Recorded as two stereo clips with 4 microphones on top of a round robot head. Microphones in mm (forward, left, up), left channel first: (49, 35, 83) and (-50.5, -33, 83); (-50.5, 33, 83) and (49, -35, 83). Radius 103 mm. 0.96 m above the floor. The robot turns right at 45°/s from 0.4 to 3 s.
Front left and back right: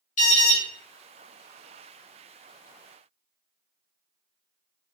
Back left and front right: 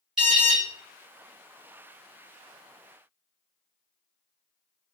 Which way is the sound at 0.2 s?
50° left.